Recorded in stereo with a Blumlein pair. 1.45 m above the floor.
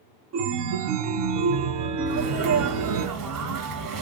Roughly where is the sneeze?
Ahead right.